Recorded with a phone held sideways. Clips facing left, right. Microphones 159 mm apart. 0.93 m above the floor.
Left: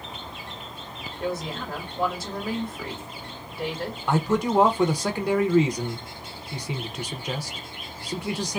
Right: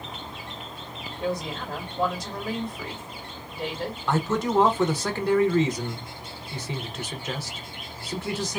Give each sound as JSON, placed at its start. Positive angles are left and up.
{"t": 1.2, "sound": "a woman speaking", "side_deg": 5, "distance_m": 2.0}
{"t": 4.1, "sound": "a man speaking", "side_deg": 10, "distance_m": 0.6}